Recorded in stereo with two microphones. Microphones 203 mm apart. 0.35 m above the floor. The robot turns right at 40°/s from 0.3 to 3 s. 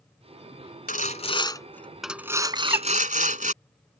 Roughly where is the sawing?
Behind left.